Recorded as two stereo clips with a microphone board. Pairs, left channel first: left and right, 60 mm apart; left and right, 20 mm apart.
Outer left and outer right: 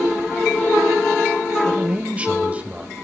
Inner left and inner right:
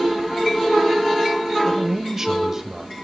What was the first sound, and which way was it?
A man speaking, 20° right (ahead or behind).